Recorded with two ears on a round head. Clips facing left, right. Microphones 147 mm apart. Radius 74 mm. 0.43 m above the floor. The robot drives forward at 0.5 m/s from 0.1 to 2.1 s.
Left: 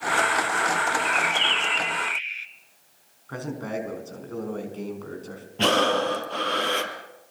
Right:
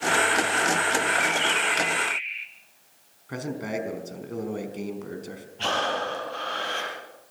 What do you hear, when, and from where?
1.1 s a bird: 70° left (ahead or behind), 1.2 m; by 2.5 s 50° left (ahead or behind), 1.4 m
3.3 s a man speaking: 15° right (ahead or behind), 4.5 m
5.6 s breathing: 70° left (ahead or behind), 3.5 m